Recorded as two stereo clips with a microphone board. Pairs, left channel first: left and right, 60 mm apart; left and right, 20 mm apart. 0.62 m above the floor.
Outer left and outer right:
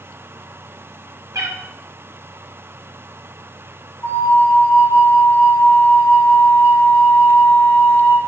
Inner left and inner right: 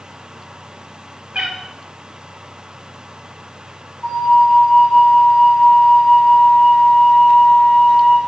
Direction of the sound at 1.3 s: 80° right.